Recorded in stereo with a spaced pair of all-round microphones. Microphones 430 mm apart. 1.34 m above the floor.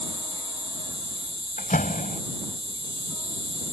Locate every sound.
0.0 s an insect: 45° right (ahead or behind)
1.6 s a door slam: 20° left (ahead or behind)